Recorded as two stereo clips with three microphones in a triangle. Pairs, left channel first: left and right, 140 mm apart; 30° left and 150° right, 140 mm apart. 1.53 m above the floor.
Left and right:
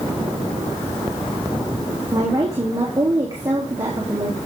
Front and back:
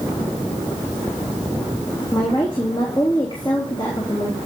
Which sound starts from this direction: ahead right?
A woman speaking, at 2.1 s.